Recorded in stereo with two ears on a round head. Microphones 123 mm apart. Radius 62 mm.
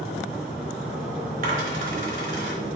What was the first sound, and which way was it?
A dropped coin, 60° right (ahead or behind).